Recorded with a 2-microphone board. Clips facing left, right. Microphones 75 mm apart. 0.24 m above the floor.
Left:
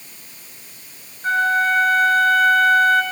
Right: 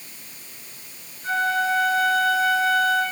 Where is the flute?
55° left (ahead or behind), 2.5 m.